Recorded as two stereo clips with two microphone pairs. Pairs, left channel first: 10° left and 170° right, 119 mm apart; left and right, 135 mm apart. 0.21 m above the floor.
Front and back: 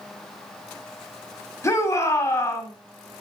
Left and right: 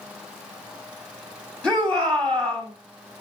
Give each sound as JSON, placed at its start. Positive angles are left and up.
{"t": 1.6, "sound": "a shout", "azimuth_deg": 20, "distance_m": 1.7}